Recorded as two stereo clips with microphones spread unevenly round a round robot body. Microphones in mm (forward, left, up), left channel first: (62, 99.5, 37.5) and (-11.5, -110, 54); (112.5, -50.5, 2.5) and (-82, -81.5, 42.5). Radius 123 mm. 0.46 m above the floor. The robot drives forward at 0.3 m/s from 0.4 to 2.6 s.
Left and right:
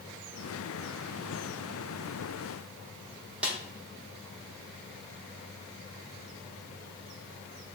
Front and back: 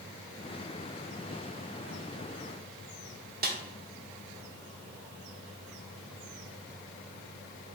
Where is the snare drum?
165° left, 0.7 m.